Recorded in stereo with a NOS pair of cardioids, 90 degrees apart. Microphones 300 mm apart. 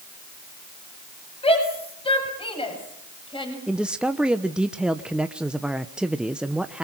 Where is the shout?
20° left, 8 m; by 3.6 s 15° left, 7 m.